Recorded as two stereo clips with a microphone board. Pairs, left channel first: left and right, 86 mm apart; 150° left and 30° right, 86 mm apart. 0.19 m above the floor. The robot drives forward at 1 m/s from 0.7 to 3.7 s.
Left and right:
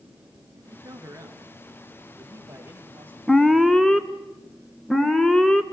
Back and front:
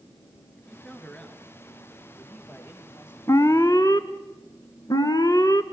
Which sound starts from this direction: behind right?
A man speaking, at 0.6 s.